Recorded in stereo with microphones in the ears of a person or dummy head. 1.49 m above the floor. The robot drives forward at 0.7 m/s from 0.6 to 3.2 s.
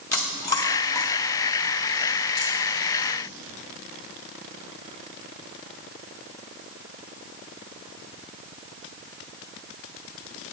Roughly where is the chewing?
Centre.